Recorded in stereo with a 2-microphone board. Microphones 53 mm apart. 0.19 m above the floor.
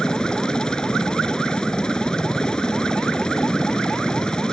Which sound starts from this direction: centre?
A helicopter, at 0.0 s.